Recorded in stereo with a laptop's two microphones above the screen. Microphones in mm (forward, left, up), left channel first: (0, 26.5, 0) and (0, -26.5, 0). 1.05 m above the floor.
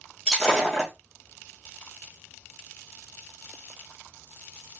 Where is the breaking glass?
Centre (ahead or behind), 1.9 m.